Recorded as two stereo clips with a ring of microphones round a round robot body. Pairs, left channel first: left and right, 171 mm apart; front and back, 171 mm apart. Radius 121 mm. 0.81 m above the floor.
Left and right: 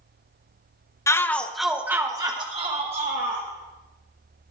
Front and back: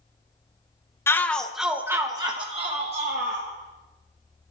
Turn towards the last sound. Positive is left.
turn(degrees=-135)